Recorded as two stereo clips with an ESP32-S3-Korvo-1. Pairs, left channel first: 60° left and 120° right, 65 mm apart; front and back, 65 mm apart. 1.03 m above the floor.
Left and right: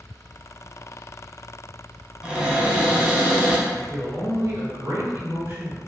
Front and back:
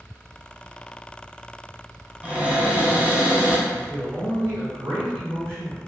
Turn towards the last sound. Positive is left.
turn(degrees=-155)